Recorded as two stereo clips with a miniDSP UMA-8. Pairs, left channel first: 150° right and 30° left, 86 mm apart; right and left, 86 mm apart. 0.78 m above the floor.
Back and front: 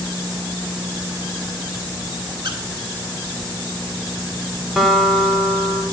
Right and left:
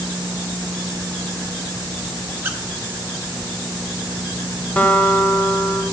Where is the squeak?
30° left, 1.1 m.